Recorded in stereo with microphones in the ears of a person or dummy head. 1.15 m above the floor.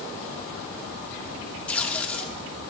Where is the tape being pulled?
5° left (ahead or behind), 1.4 m.